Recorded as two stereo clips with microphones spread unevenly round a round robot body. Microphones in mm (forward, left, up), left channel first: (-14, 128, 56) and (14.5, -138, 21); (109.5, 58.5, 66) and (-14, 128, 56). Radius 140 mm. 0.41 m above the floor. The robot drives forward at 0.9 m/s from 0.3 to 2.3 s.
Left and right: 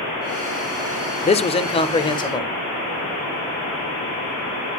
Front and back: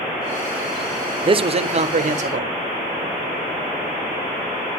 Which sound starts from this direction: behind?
A man speaking, at 1.2 s.